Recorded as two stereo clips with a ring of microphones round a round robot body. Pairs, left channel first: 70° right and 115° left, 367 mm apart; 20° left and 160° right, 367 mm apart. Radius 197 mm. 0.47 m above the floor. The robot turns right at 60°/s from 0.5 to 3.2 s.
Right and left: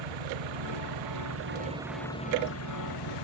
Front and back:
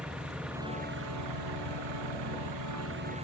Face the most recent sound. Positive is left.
turn(degrees=-85)